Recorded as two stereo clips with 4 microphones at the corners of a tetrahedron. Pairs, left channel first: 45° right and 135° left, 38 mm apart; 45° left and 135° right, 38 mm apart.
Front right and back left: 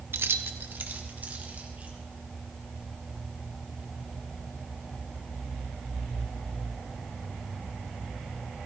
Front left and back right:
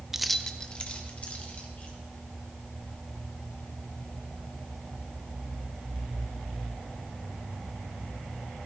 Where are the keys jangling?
145° left, 0.6 m; by 1.9 s 90° left, 2.5 m.